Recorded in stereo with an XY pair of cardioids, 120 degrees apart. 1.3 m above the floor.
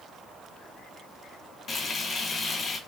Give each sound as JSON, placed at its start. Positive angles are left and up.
{"t": 1.7, "sound": "frying", "azimuth_deg": 40, "distance_m": 1.2}